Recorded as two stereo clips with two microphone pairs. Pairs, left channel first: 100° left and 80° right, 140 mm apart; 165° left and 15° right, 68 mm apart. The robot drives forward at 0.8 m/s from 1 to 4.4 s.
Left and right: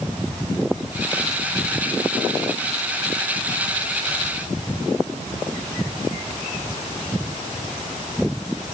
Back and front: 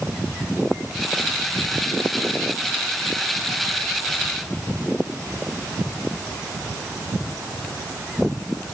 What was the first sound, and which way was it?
Only background noise.